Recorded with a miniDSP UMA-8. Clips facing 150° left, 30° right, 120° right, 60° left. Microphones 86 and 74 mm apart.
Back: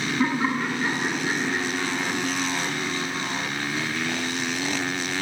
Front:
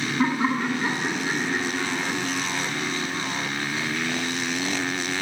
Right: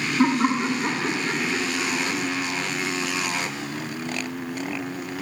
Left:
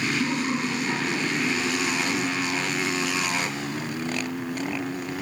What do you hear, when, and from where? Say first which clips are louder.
0.2 s laughter: front 1 dB, right 5 dB; 95° right, 3 m; by 2.2 s 105° right, 4 m